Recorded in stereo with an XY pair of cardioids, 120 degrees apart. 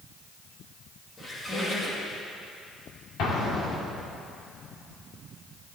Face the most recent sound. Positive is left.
turn(degrees=65)